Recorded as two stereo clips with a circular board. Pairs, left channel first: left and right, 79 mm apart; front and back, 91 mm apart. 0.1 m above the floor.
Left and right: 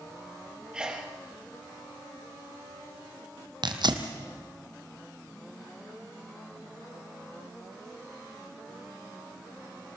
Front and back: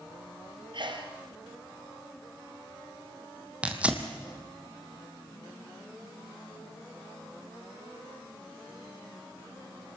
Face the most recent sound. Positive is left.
turn(degrees=-105)